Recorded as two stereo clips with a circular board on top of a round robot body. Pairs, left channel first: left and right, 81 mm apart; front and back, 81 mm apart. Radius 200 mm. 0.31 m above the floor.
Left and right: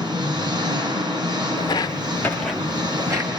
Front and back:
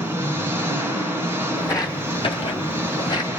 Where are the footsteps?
55° left, 1.2 m; by 3.3 s 45° right, 1.2 m.